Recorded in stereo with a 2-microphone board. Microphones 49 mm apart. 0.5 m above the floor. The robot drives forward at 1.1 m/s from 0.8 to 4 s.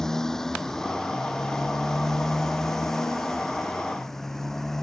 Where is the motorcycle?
10° left (ahead or behind); by 4.8 s 5° left (ahead or behind).